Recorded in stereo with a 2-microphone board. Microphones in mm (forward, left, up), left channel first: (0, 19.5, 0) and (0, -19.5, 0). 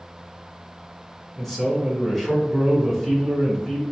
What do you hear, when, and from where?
1.4 s a man speaking: 5° left (ahead or behind), 1.1 m